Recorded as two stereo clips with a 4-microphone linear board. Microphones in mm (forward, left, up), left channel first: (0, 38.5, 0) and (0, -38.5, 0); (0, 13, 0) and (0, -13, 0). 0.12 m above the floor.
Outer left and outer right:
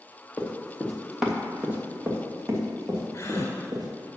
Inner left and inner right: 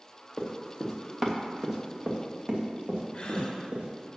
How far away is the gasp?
About 1.4 m.